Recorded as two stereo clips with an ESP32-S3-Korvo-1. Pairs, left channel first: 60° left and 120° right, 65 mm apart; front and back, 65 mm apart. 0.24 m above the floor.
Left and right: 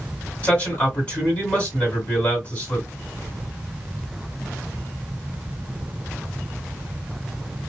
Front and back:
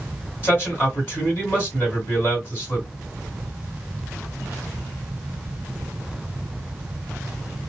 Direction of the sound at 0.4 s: 25° left.